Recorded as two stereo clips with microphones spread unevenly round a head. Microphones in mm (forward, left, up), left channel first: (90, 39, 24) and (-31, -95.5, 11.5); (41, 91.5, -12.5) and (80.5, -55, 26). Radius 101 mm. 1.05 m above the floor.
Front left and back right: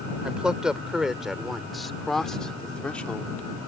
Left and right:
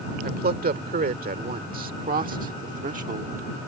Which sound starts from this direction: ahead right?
A man speaking, at 0.2 s.